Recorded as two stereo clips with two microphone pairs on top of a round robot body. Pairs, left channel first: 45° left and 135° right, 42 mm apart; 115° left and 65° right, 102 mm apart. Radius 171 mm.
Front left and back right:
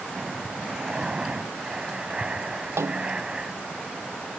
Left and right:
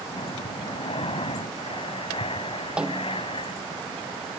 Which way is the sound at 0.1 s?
150° left.